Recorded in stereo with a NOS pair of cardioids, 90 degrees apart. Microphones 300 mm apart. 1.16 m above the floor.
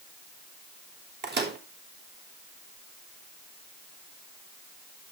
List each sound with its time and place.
1.2 s a microwave: 30° right, 3.5 m